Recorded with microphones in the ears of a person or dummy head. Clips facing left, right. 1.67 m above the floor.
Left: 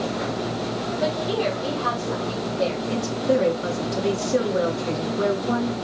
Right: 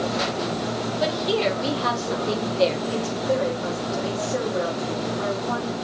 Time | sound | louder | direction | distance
1.0 | a woman speaking | right 1 dB | 35° right (ahead or behind) | 3.5 m
2.9 | a woman speaking | left 2 dB | 40° left (ahead or behind) | 3 m